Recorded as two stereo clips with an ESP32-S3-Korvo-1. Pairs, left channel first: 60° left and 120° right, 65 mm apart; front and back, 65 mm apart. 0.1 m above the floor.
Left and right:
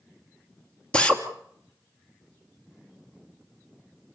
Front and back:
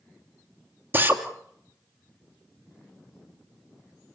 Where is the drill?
130° left, 2.5 m.